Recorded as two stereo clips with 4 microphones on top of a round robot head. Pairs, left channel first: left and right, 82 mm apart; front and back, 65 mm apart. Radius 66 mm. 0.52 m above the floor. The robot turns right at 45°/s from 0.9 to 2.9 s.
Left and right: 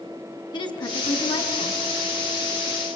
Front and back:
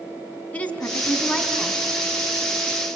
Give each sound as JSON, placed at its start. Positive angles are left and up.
{"t": 0.5, "sound": "a woman speaking", "azimuth_deg": 70, "distance_m": 4.0}